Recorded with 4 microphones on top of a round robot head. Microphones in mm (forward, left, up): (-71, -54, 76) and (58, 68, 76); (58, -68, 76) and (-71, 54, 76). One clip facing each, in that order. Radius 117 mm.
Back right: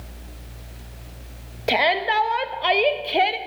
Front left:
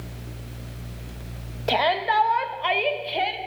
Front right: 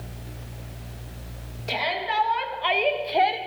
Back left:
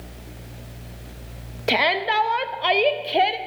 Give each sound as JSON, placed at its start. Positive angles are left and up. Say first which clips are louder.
{"t": 1.7, "sound": "a shout", "louder": "back right 1 dB, back left 6 dB", "azimuth_deg": 150, "distance_m": 1.5}